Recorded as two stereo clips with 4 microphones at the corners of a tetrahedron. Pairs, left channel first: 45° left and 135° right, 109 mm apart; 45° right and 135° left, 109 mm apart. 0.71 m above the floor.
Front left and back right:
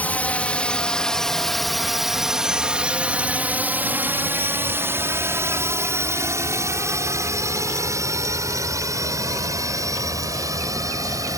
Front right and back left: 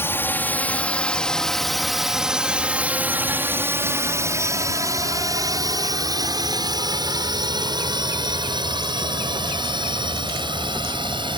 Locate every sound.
0.0 s a drone: 10° right; by 11.4 s 170° left